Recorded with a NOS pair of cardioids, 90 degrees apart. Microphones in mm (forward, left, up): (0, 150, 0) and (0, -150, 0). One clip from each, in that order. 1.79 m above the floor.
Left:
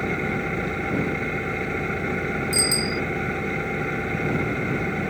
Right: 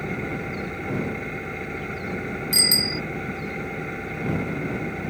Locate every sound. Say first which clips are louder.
0.0 s an engine running: left 4 dB; 35° left
2.5 s a bicycle bell: right 5 dB; 35° right